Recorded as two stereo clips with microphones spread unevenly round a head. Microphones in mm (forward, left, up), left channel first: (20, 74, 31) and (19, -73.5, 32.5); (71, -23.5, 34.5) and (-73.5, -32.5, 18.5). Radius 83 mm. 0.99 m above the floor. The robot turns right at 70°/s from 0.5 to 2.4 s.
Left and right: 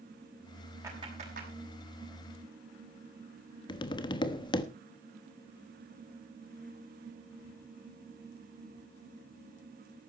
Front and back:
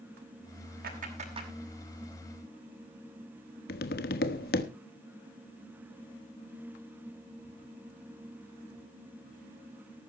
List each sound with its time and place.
0.8 s a clap: 165° right, 6 m; by 1.5 s 120° right, 6 m
3.7 s tapping: 30° left, 1.2 m